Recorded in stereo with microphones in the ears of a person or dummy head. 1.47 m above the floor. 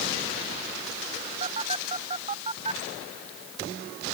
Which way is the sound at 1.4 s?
40° right (ahead or behind).